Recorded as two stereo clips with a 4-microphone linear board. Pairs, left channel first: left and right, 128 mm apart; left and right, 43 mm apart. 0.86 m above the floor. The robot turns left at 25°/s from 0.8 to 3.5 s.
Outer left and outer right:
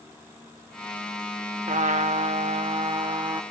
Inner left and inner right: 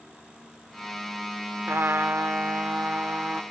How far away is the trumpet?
About 0.9 m.